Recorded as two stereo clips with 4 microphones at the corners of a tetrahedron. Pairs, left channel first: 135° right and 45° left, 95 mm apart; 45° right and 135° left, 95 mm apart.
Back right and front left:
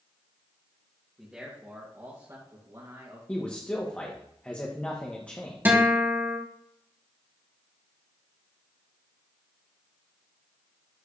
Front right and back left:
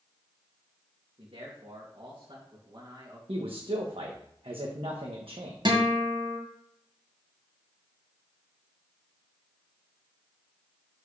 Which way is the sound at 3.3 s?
150° left.